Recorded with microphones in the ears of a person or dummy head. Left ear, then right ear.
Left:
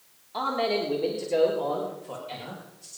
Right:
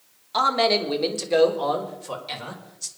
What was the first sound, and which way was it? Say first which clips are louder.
A man speaking: right 7 dB; 50° right (ahead or behind).